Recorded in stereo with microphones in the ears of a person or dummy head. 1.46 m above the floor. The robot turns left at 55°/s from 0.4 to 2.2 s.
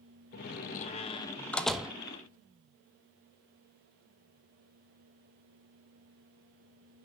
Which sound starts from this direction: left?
A door slam, at 0.3 s.